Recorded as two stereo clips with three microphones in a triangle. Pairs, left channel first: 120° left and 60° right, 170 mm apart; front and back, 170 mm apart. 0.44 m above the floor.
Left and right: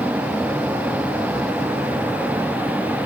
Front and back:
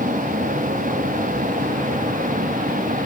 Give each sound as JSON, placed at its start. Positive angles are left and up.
{"t": 0.0, "sound": "a vehicle", "azimuth_deg": -140}